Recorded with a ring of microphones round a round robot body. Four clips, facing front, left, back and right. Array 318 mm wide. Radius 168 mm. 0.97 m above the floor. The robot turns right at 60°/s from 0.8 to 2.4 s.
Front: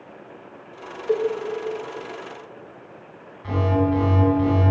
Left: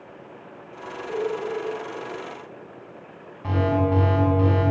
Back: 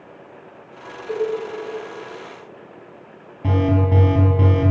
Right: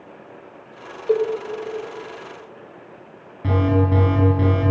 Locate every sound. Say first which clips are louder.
1.1 s a cowbell: right 8 dB, front 2 dB; 65° right, 5 m; by 1.3 s 50° right, 5 m
3.4 s an alarm: right 2 dB, back 2 dB; 150° right, 8.5 m